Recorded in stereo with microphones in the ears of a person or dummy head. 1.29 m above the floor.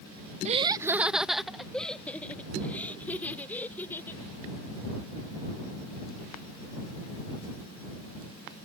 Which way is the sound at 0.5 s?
40° right (ahead or behind).